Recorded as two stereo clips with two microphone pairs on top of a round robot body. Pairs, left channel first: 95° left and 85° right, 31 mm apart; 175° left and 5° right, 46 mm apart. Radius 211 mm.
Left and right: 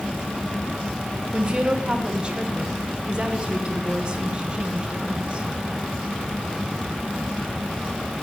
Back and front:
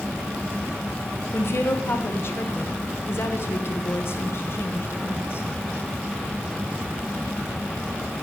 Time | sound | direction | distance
1.3 | a woman speaking | 150° right | 1.3 m